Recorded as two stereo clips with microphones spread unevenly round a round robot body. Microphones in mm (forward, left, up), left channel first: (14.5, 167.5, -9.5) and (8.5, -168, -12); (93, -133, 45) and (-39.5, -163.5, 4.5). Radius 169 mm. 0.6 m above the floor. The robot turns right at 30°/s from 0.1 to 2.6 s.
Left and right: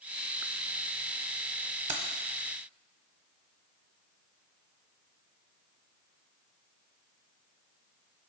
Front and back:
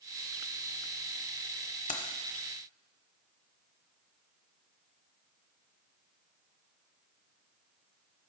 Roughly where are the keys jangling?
Ahead right.